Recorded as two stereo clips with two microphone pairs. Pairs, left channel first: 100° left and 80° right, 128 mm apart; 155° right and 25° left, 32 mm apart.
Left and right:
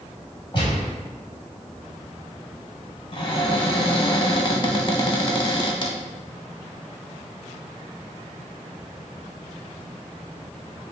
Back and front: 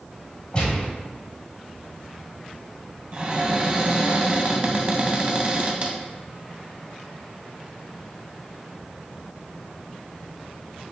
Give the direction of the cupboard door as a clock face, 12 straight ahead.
10 o'clock.